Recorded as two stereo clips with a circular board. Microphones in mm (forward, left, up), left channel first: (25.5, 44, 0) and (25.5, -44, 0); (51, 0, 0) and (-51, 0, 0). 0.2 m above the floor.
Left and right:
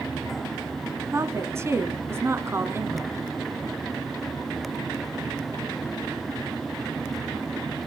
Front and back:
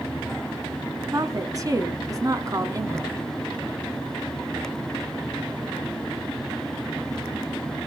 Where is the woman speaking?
140° right, 2 m.